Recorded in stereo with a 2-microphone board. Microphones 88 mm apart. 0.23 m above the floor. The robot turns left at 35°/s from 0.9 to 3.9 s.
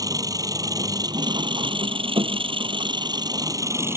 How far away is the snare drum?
I don't hear a snare drum.